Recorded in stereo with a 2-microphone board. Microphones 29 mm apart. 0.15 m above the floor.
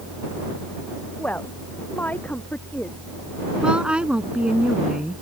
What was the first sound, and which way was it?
A woman speaking, 65° left (ahead or behind).